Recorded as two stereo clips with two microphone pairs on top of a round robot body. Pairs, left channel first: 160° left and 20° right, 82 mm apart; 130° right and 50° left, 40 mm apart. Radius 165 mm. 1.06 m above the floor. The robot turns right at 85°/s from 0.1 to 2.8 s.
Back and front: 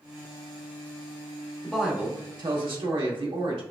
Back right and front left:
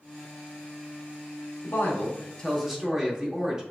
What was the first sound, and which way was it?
A woman speaking, 120° right.